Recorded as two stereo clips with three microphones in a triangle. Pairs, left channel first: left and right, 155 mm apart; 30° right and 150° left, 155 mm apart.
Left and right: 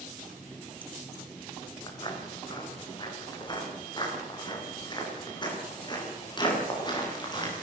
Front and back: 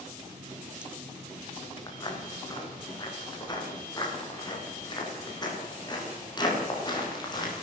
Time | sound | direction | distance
0.2 | a running tap | 170° left | 2.5 m
1.9 | footsteps | 30° left | 7.5 m